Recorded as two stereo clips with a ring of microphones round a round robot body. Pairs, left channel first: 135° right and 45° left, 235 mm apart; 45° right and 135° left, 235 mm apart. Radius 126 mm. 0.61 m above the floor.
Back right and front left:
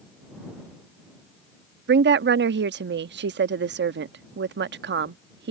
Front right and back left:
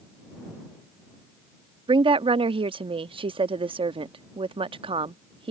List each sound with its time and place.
1.9 s a woman speaking: 70° left